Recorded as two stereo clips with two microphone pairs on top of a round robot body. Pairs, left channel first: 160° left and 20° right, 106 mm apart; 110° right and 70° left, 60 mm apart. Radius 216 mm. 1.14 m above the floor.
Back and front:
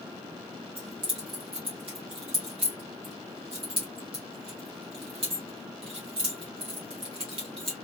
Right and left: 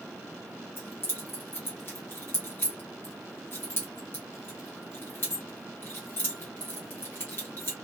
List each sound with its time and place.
0.8 s keys jangling: 55° right, 0.8 m